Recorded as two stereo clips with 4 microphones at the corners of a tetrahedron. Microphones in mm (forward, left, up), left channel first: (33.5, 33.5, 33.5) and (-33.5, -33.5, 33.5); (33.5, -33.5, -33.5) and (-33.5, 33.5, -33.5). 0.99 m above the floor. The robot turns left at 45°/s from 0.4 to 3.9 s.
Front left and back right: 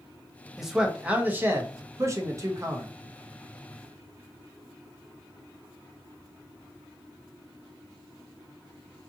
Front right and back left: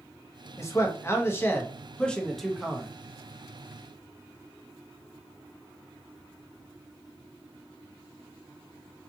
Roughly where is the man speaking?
Ahead right.